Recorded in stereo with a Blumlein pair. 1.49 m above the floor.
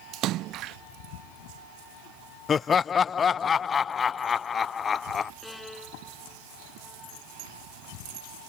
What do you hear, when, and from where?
0.1 s a splash: 35° right
2.5 s laughter: 20° left
5.4 s a violin: 5° left